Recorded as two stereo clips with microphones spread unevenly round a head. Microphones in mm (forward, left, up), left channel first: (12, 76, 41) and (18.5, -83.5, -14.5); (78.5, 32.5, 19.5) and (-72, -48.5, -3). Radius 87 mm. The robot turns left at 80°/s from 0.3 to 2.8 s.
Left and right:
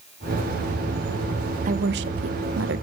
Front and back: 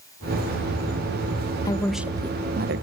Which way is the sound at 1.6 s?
35° right.